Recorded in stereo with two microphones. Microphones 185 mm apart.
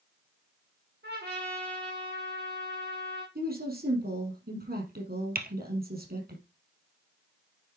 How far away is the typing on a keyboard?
About 1.4 m.